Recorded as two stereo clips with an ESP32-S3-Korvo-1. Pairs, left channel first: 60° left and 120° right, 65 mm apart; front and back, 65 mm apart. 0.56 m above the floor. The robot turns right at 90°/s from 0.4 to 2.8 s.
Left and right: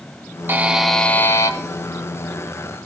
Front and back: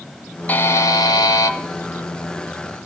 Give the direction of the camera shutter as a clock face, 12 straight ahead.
No camera shutter in this recording.